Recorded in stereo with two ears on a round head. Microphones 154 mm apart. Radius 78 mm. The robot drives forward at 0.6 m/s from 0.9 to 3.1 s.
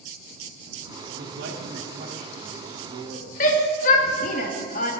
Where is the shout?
45° left (ahead or behind), 1.1 m.